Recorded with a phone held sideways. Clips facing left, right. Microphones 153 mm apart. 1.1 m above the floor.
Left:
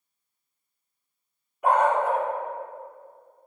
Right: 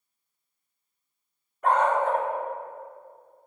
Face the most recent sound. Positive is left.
turn(degrees=10)  # may be behind; listen again after turning